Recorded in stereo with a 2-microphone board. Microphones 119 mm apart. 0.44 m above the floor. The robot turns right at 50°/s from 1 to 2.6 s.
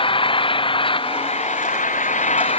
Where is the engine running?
45° left; by 2.6 s 125° left.